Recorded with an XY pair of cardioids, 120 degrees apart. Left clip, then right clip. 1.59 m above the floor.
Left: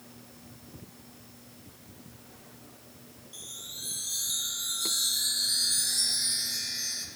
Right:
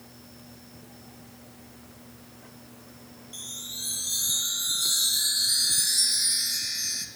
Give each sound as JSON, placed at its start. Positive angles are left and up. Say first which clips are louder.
{"t": 3.3, "sound": "a chime", "louder": "right 5 dB", "azimuth_deg": -25, "distance_m": 0.7}